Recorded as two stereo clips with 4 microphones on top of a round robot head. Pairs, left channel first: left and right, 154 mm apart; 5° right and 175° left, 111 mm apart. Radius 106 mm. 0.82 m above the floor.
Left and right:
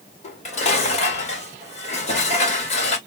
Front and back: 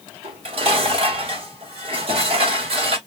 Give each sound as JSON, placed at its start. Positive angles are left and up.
{"t": 0.2, "sound": "dishes clattering", "azimuth_deg": 140, "distance_m": 1.8}